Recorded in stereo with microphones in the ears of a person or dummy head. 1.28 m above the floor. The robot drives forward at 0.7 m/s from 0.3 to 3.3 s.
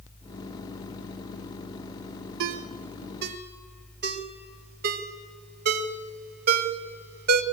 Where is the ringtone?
70° right (ahead or behind), 0.9 m; by 7.4 s 45° right (ahead or behind), 1.1 m.